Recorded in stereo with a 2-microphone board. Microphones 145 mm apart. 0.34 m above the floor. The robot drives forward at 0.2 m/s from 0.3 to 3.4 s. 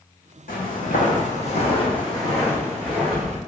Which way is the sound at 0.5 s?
75° left (ahead or behind).